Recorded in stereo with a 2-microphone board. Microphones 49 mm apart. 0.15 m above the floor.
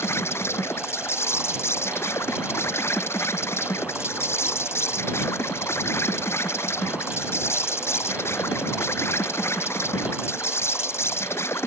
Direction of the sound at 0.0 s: 60° left (ahead or behind).